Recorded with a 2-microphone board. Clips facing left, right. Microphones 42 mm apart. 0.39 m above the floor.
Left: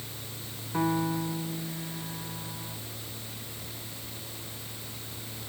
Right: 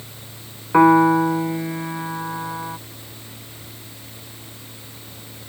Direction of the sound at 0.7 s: 80° right.